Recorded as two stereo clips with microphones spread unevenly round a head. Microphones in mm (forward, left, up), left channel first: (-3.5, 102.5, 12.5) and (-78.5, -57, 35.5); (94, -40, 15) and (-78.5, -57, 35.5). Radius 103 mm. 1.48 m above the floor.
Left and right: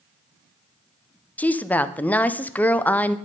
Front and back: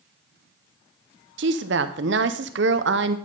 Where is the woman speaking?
145° left, 0.6 m.